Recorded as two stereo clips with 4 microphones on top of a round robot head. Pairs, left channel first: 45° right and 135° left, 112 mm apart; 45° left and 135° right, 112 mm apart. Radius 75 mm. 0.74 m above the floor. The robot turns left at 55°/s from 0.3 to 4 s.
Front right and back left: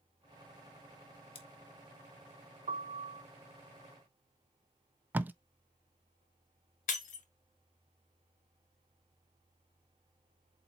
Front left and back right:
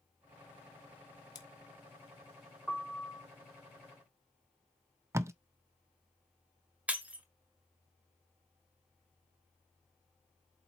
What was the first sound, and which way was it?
Scissors, 10° right.